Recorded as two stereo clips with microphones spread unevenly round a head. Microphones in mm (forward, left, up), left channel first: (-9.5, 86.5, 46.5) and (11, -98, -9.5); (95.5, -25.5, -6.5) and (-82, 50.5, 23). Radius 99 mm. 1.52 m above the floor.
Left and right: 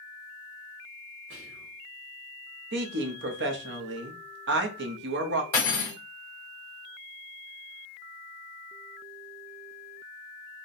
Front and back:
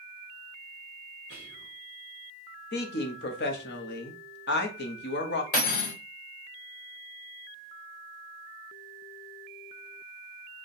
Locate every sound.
1.3 s whispering: 60° right, 1.2 m
2.7 s a woman speaking: 60° right, 0.7 m
5.5 s cutlery clinking: 25° left, 2 m